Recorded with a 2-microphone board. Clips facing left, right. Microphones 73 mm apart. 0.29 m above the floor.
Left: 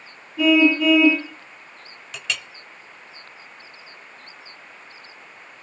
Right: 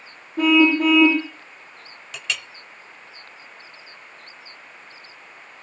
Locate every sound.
0.4 s a car horn: 50° right (ahead or behind), 8 m
2.1 s a clink: centre (ahead or behind), 0.5 m